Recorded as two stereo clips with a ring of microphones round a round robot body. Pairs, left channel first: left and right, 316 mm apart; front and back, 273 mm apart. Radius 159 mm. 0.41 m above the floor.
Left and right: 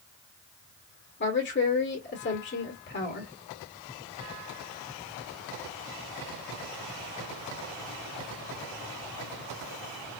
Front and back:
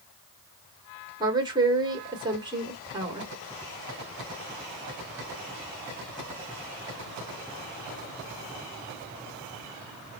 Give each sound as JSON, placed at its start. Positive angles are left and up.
{"t": 1.2, "sound": "a woman speaking", "azimuth_deg": 115, "distance_m": 1.6}